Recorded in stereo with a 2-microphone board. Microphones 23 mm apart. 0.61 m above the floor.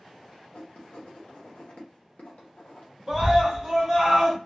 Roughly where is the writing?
Left.